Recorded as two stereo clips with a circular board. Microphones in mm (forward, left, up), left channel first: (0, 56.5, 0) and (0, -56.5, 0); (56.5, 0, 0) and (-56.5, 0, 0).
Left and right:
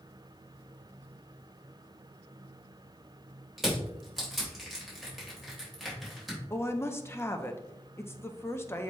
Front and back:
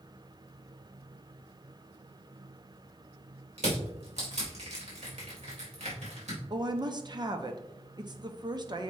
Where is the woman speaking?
150° left, 0.6 m.